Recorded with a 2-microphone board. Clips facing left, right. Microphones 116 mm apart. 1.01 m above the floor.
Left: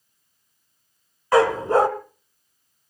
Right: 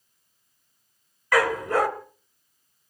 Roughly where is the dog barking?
Left.